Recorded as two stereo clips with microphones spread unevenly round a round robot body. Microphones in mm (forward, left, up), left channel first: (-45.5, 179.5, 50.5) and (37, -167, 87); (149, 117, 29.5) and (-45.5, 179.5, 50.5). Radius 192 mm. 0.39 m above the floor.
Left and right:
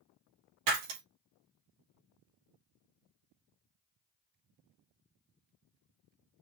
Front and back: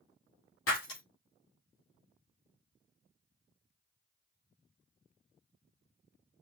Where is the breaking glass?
60° right, 3 m.